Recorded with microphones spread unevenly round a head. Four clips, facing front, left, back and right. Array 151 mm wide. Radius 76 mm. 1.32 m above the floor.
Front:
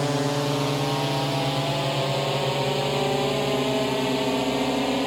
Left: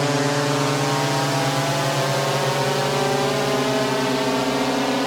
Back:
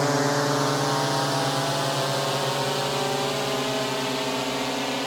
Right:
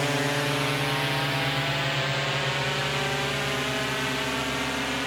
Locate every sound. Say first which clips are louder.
0.0 s a drone: left 6 dB, back 2 dB; 100° left; by 5.1 s 65° left